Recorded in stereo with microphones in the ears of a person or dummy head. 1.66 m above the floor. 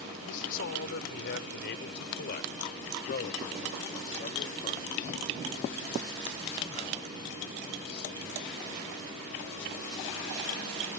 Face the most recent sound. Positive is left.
turn(degrees=30)  # may be behind; listen again after turning